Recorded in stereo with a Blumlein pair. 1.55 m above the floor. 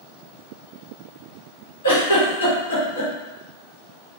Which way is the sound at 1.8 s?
70° left.